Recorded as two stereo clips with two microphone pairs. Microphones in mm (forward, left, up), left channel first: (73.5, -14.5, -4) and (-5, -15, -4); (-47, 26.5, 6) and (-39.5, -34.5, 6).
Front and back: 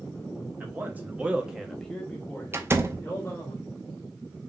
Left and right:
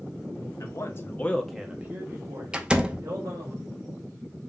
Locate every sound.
0.6 s a man speaking: 115° left, 1.4 m; by 3.5 s 65° right, 2.5 m
2.5 s a door slam: 145° right, 0.7 m